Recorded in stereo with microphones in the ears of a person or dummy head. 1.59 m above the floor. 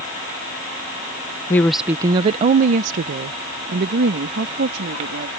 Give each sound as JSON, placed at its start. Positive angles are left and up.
{"t": 1.5, "sound": "a woman speaking", "side_deg": 15}